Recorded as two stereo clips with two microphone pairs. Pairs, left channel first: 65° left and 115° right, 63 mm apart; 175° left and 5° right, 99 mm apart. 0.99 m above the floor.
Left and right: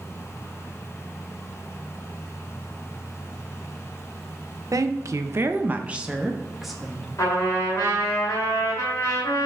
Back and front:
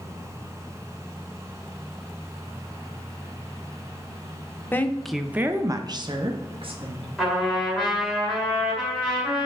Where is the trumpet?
85° left, 2 m.